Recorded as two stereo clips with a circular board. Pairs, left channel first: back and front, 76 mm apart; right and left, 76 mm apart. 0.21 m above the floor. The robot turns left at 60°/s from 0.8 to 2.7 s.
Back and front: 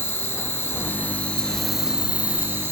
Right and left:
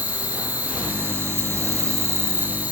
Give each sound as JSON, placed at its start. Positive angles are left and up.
{"t": 0.0, "sound": "an insect", "azimuth_deg": 145, "distance_m": 2.5}